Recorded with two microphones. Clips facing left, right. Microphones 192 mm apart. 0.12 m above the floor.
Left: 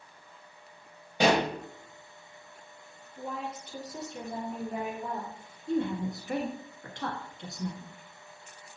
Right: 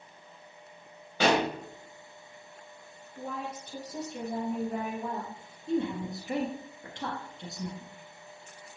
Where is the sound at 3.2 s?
50° right (ahead or behind), 2 m.